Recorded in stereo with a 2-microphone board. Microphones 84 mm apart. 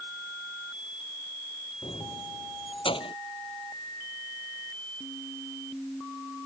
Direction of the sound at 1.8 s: 75° left (ahead or behind).